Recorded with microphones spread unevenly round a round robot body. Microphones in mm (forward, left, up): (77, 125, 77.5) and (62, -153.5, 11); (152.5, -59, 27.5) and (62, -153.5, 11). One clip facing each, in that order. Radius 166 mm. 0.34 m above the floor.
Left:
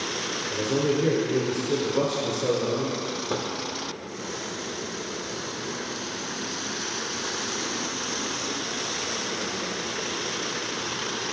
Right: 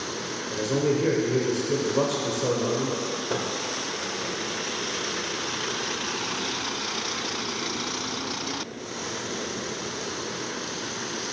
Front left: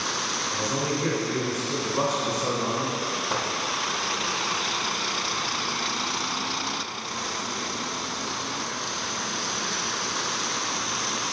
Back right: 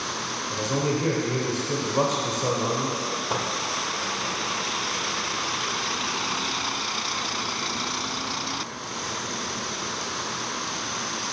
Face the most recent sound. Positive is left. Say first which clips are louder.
# even, back right 2 dB
turn(degrees=-140)